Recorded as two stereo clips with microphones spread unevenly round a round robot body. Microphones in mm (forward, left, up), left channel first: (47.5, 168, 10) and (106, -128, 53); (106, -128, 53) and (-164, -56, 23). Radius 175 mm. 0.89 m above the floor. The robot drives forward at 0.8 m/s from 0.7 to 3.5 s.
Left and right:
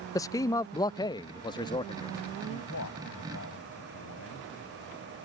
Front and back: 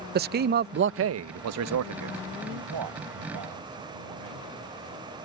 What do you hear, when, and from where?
0.1 s a man speaking: 165° left; by 2.1 s 175° left
2.5 s a man speaking: 155° left; by 4.5 s 160° left